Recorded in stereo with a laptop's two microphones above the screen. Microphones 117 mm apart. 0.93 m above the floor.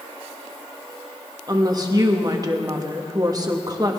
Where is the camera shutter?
No camera shutter in this recording.